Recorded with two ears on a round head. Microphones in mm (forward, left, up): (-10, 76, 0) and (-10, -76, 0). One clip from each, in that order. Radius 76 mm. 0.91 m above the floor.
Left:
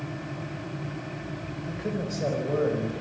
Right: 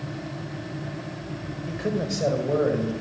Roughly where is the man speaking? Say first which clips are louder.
Right 5 dB; right.